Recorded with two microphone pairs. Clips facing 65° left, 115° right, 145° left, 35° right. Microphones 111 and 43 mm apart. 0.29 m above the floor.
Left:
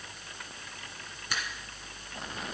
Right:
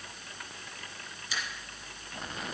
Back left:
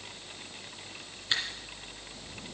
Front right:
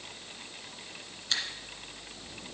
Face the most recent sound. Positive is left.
turn(degrees=85)